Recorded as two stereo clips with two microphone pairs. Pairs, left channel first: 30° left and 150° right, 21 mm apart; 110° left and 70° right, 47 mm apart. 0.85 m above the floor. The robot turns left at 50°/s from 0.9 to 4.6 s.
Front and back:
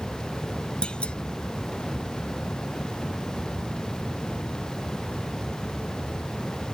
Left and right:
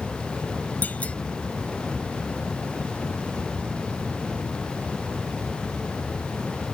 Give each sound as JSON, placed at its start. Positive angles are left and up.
{"t": 0.8, "sound": "a clunk", "azimuth_deg": 60}